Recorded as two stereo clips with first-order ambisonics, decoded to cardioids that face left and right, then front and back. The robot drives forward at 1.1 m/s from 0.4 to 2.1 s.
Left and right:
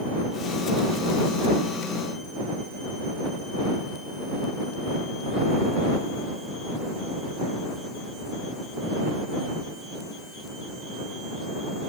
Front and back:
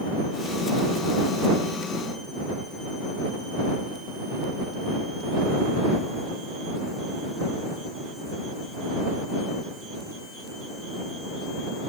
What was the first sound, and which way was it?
Only background noise.